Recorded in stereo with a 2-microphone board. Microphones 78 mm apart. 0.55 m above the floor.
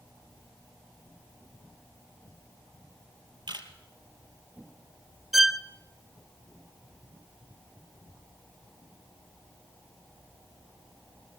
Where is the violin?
5° right (ahead or behind), 0.6 m.